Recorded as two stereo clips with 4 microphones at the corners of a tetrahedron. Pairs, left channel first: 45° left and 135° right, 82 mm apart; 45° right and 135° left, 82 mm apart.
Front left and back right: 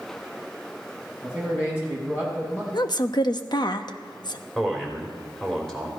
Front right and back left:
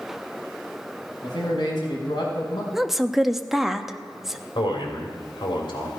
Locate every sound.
1.2 s a man speaking: 15° right, 4 m
2.7 s a woman speaking: 50° left, 0.8 m
4.5 s a man speaking: 35° right, 3.5 m